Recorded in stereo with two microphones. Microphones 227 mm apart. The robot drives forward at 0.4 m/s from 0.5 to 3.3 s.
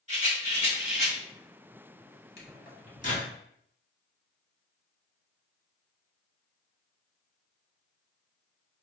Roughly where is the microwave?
Left.